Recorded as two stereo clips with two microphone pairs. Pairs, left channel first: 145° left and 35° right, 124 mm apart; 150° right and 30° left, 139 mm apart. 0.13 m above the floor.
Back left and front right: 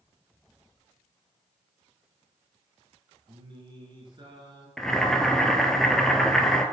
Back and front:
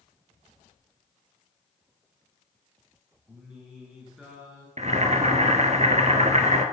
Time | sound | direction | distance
3.3 | singing | 50° right | 1.7 m
4.8 | boiling | 55° left | 0.7 m